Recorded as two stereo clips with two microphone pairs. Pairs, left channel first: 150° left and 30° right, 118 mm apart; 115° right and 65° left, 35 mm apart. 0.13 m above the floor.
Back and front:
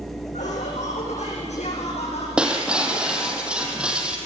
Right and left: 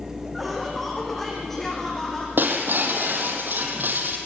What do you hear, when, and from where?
0.3 s laughter: 150° left, 6.5 m; by 2.3 s straight behind, 5.5 m
2.4 s breaking glass: 55° left, 3 m